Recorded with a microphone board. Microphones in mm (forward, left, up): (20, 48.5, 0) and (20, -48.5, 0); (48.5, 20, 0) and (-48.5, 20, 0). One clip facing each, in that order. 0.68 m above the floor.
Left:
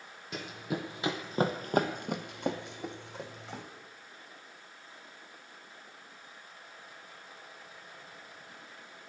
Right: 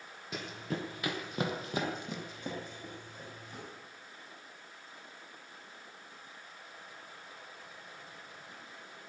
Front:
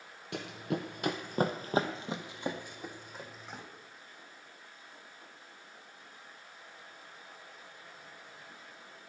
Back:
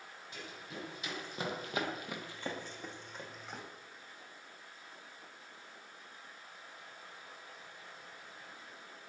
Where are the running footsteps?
Straight ahead, 1.4 m; by 3.6 s 90° left, 2 m.